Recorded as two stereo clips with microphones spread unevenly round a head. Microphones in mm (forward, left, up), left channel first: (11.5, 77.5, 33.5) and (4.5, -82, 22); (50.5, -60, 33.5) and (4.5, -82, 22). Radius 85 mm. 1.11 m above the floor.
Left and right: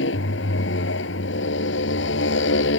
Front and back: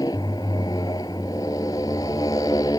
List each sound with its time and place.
0.0 s a motorcycle: 75° left